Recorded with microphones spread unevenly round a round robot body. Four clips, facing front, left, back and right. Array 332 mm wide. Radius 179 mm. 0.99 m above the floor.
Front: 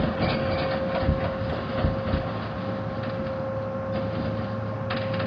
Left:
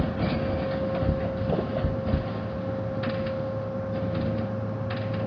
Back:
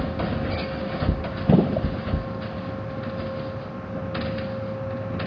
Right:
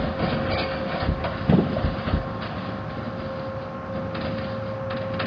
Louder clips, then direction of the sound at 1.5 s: Right 8 dB, back 8 dB; 140° right.